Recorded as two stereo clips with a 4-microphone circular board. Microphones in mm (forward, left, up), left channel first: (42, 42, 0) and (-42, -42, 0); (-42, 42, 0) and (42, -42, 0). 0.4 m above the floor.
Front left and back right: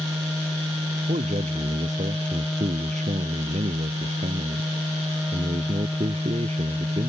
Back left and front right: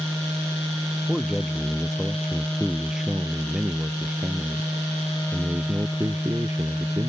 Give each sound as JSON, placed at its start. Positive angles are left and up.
{"t": 1.1, "sound": "a man speaking", "azimuth_deg": -140}